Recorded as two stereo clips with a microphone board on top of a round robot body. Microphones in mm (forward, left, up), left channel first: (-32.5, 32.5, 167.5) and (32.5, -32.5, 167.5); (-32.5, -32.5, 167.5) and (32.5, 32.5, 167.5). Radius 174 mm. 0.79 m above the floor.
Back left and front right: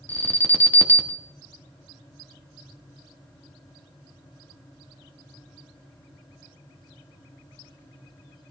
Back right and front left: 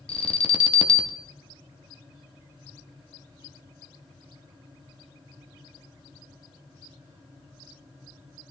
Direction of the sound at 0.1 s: 155° right.